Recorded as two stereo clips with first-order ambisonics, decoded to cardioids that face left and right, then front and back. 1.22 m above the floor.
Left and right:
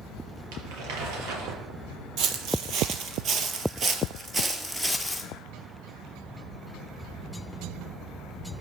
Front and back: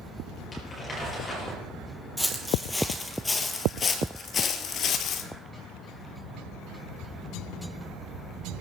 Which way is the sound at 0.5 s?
80° right.